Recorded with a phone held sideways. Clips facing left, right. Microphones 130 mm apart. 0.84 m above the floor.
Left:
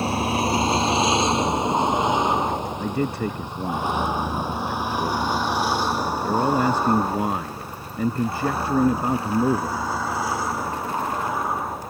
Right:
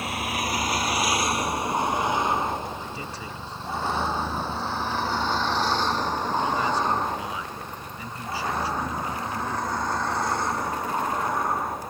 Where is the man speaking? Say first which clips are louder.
Left 11 dB; 55° left (ahead or behind).